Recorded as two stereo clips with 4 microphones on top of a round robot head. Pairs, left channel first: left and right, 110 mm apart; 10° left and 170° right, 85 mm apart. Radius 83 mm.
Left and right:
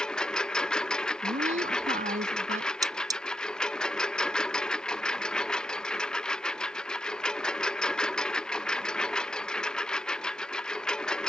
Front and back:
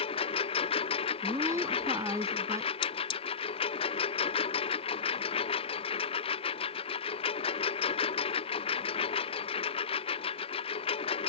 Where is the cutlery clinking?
35° right.